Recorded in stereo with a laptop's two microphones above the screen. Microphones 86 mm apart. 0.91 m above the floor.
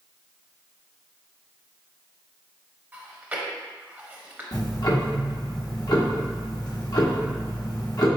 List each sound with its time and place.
2.9 s chewing: 20° right (ahead or behind), 0.7 m
4.5 s ticking: 50° left (ahead or behind), 1.0 m